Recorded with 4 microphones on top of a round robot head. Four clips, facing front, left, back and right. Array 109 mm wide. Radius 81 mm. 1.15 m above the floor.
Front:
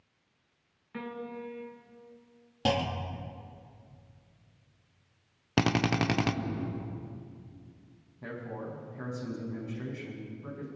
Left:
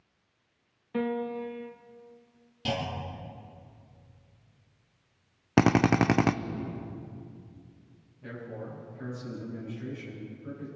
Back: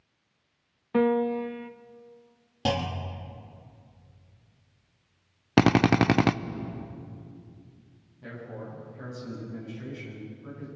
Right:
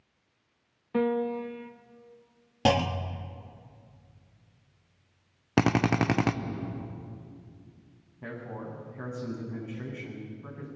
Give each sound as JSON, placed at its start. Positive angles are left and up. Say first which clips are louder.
{"t": 0.9, "sound": "a piano", "louder": "right 4 dB, back 16 dB", "azimuth_deg": -170, "distance_m": 0.8}
{"t": 2.6, "sound": "a clunk", "louder": "right 7 dB, back 1 dB", "azimuth_deg": -90, "distance_m": 1.2}
{"t": 5.6, "sound": "a drill", "louder": "left 2 dB, back 7 dB", "azimuth_deg": 160, "distance_m": 0.7}
{"t": 8.2, "sound": "a man speaking", "louder": "right 1 dB, front 1 dB", "azimuth_deg": -65, "distance_m": 7.5}